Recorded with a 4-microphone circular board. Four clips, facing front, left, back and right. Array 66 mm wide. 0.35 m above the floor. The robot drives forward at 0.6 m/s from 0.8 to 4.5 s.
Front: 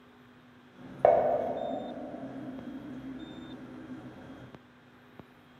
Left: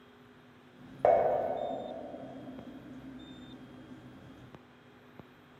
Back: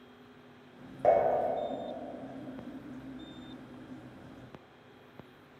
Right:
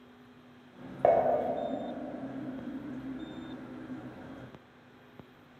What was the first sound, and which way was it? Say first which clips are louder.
Dishes clattering: even, front 2 dB; 10° right.